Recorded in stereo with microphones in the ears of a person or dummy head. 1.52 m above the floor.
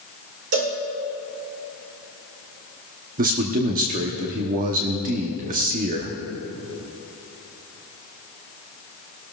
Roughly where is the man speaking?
Right.